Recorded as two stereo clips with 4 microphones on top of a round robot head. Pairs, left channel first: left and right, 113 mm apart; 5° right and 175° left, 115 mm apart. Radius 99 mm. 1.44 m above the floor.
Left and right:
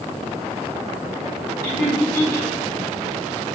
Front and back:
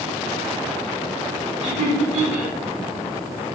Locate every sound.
1.6 s laughter: 145° left, 2.0 m